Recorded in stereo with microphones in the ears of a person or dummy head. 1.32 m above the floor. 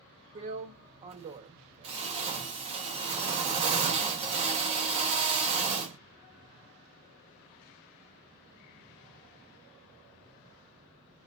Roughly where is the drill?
Right.